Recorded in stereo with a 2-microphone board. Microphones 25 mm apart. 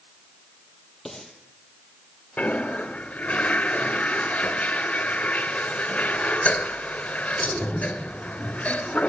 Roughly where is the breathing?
Centre.